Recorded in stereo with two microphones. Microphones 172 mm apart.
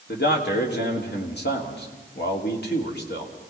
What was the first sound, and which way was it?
A man speaking, 75° left (ahead or behind).